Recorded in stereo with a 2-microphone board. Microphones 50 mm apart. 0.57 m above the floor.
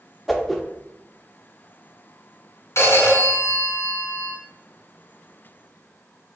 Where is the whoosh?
Centre (ahead or behind), 0.5 m.